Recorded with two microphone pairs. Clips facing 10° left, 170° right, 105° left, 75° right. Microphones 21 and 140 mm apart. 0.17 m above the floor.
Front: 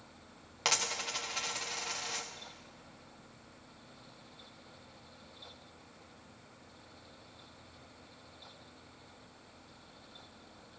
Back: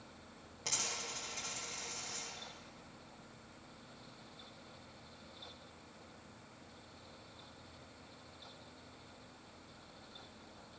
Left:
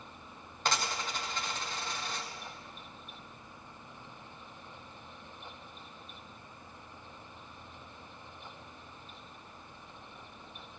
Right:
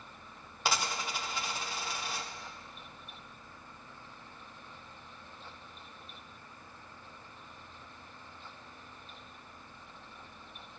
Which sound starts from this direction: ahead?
A dropped coin, at 0.7 s.